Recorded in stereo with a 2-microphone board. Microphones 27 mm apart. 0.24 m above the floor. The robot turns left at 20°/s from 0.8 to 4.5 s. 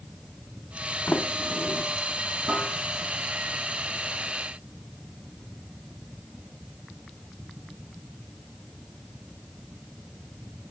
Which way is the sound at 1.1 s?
50° left (ahead or behind).